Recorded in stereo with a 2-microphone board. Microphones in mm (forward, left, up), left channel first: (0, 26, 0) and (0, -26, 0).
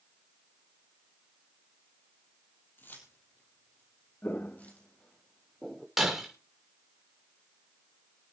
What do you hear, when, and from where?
2.8 s keys jangling: 45° left (ahead or behind), 4 m; by 4.9 s 30° left (ahead or behind), 4.5 m
4.2 s footsteps: 40° left (ahead or behind), 1.1 m; by 5.9 s centre (ahead or behind), 1.5 m
6.0 s breaking glass: 5° right (ahead or behind), 5.5 m